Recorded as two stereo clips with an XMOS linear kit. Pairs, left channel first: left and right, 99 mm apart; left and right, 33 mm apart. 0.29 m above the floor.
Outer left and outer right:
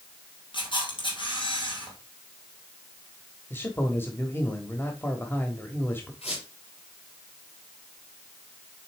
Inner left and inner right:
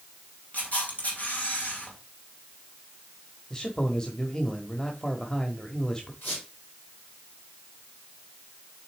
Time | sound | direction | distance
0.5 | a camera shutter | 55° left (ahead or behind) | 3 m
3.5 | a man speaking | 20° left (ahead or behind) | 1.1 m
6.2 | a squeak | 80° left | 5 m